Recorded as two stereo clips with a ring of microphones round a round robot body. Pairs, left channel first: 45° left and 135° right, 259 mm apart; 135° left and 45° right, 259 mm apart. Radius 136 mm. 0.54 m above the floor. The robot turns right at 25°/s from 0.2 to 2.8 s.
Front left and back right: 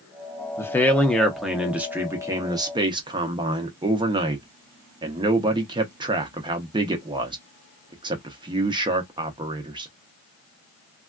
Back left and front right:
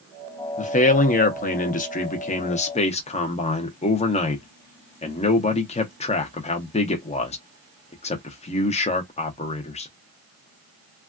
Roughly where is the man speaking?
Behind left.